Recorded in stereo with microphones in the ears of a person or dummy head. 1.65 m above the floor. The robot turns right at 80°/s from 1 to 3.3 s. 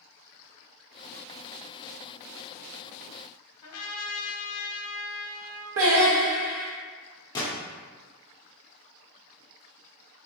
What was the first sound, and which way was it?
A trumpet, 85° left.